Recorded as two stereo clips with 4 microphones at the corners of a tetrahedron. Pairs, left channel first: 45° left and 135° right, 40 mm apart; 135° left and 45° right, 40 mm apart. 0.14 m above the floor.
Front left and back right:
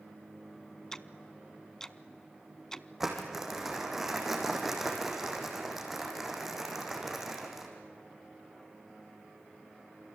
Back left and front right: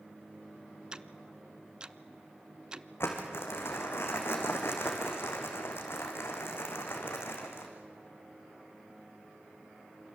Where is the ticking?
10° right, 0.6 m.